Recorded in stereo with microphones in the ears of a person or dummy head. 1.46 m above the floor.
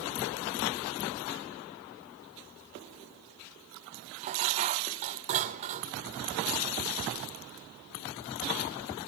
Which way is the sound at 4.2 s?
35° right (ahead or behind).